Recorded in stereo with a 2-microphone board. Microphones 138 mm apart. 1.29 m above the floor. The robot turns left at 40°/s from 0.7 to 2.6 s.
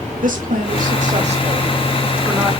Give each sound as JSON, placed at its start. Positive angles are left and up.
{"t": 0.2, "sound": "a woman speaking", "azimuth_deg": -105, "distance_m": 2.5}